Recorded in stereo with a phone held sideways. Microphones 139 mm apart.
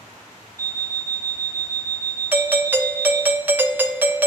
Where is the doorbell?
15° right (ahead or behind), 0.6 m.